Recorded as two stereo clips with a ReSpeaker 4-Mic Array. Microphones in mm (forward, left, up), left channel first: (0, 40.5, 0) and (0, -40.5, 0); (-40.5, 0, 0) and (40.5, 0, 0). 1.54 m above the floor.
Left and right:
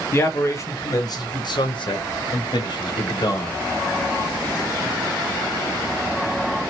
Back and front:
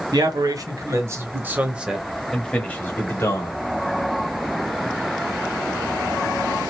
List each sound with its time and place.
0.1 s a man speaking: 30° left, 1.4 m; by 3.6 s 125° left, 1.4 m